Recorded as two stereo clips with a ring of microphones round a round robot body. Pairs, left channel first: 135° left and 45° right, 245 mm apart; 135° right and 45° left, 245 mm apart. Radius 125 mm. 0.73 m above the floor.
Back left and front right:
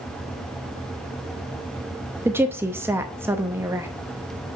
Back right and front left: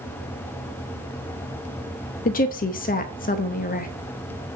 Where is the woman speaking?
120° right, 0.8 m.